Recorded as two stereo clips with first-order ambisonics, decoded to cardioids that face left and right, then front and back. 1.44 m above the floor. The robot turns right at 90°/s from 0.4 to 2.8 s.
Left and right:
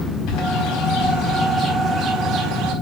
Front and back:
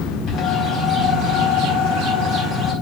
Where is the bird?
55° left, 4.5 m; by 2.7 s 95° right, 4.5 m.